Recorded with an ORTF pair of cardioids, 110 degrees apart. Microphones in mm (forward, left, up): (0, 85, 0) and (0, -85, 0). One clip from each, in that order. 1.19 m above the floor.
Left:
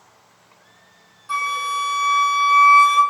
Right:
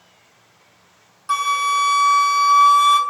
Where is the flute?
45° right, 0.6 m.